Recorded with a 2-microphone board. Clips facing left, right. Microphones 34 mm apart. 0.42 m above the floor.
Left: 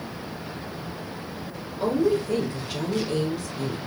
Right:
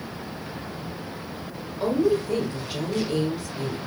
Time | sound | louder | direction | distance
1.8 | a woman speaking | even | 10° right (ahead or behind) | 1.3 m